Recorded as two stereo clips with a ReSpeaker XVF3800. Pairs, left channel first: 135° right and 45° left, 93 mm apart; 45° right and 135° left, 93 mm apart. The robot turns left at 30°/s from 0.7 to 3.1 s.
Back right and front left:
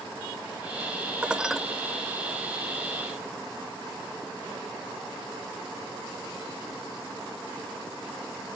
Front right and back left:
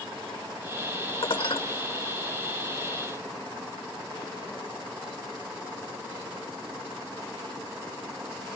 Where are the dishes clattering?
30° right, 1.2 m; by 1.6 s 45° right, 1.2 m.